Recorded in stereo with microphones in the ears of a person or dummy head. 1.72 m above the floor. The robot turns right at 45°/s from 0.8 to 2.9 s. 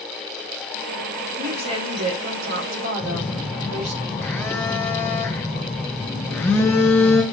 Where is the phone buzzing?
10° left (ahead or behind), 0.8 m.